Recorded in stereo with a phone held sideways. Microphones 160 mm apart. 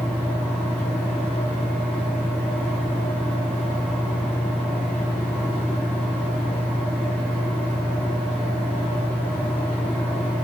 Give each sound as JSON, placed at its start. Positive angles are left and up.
{"t": 0.0, "sound": "a fan", "side_deg": 10, "distance_m": 0.8}